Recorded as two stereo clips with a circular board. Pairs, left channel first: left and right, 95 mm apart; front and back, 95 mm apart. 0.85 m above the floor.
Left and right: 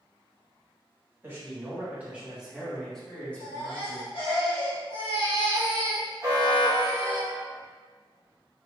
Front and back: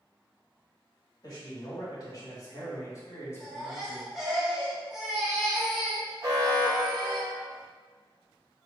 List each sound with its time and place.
1.2 s a man speaking: 30° right, 1.6 m; by 4.1 s 65° left, 1.1 m
3.4 s a baby crying: 95° left, 1.2 m
6.2 s an alarm: 135° right, 1.1 m